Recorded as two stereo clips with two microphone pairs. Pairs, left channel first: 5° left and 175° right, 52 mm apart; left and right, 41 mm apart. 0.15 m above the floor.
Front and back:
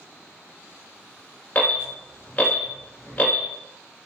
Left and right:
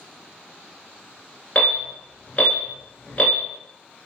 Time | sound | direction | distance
1.6 | an alarm | 45° left | 1.1 m